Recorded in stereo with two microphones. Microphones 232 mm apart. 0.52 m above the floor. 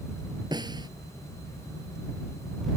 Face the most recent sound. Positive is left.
turn(degrees=-20)  # may be behind; listen again after turning